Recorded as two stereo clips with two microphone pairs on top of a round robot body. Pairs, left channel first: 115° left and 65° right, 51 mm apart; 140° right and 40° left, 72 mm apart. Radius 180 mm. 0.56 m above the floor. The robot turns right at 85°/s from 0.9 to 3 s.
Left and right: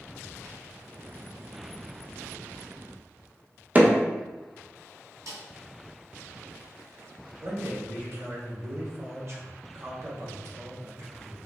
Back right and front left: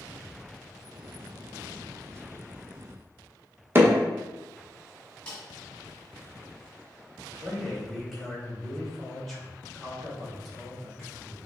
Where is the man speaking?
50° right, 2 m.